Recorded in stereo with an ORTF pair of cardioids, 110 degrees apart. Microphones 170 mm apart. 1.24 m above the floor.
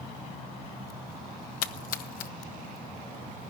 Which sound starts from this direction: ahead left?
A splash, at 1.6 s.